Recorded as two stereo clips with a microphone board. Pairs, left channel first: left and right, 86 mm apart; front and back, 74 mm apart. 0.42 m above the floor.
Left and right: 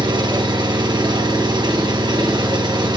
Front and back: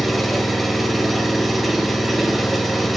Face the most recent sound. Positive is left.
turn(degrees=-90)